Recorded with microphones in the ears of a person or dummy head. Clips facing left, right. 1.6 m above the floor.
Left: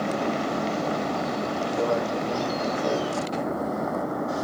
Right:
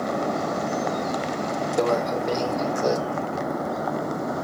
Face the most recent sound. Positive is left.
turn(degrees=-75)  # may be behind; listen again after turning